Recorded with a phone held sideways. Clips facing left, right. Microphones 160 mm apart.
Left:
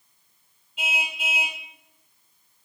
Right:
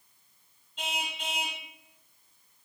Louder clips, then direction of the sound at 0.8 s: Left 3 dB; 10° left (ahead or behind).